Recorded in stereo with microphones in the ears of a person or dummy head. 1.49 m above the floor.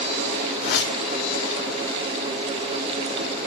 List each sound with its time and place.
0.6 s a whoosh: 60° left (ahead or behind), 2 m